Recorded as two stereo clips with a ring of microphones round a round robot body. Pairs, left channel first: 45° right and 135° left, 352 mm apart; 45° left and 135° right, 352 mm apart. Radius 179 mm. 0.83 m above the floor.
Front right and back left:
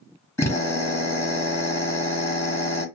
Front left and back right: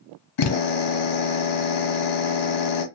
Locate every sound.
0.4 s a drill: 35° left, 1.3 m